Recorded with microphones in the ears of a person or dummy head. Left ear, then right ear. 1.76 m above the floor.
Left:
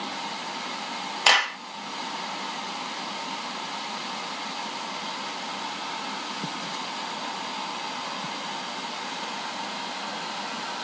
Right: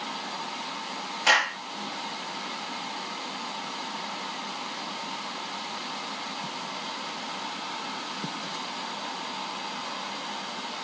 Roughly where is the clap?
Left.